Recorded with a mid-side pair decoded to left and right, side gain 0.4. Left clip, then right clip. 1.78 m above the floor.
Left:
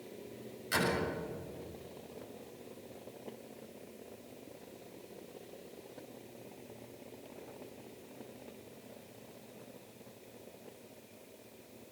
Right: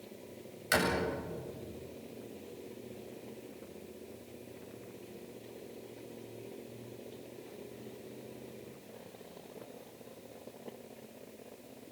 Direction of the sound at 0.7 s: 70° right.